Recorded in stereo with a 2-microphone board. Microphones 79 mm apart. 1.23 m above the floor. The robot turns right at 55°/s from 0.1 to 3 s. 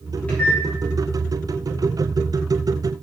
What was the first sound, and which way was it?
A microwave, 20° left (ahead or behind).